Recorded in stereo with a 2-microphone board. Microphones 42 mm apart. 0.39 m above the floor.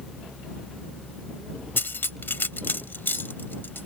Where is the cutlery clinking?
60° left (ahead or behind).